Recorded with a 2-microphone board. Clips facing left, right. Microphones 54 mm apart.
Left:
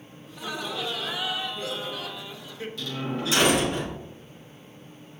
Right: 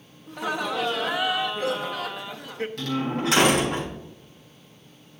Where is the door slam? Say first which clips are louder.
Right 4 dB; 60° right (ahead or behind), 5 m.